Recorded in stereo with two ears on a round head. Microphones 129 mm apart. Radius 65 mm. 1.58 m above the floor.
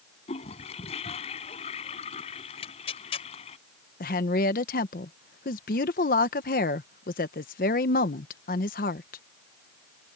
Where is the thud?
I don't hear a thud.